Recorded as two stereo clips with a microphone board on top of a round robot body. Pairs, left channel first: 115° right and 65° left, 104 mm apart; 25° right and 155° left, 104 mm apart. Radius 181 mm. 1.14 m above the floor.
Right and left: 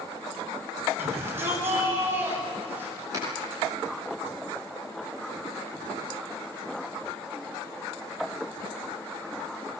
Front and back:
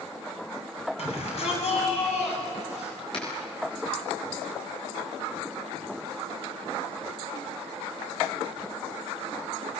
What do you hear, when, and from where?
1.0 s a shout: straight ahead, 7 m; by 3.0 s 5° right, 8 m
3.1 s a finger snap: 10° left, 9.5 m